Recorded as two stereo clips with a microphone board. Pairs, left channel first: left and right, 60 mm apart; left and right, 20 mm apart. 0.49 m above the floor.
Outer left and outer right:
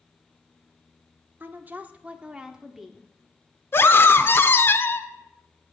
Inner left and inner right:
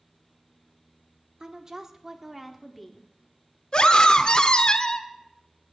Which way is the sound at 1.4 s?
35° right (ahead or behind).